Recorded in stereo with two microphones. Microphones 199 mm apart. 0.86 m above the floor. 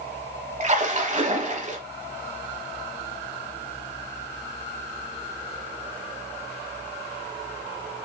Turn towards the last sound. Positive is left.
turn(degrees=-35)  # may be behind; listen again after turning